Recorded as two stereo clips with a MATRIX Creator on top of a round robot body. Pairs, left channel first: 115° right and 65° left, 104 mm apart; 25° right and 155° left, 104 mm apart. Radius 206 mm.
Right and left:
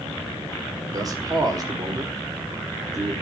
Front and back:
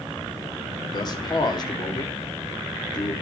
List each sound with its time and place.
0.9 s a man speaking: 20° left, 1.9 m